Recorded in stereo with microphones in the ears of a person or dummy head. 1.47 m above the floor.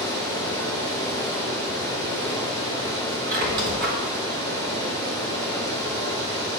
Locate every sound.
0.0 s running water: 65° right (ahead or behind), 3 m
3.3 s a squeak: 60° right (ahead or behind), 1.5 m